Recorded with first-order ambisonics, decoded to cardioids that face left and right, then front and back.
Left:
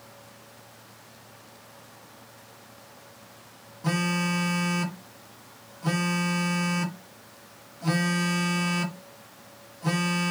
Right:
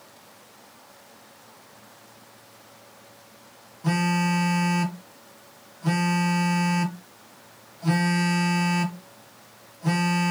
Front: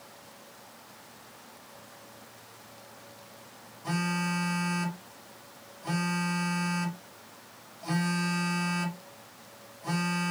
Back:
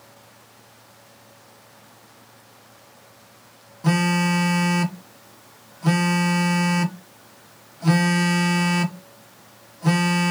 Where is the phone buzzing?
170° left, 0.7 m.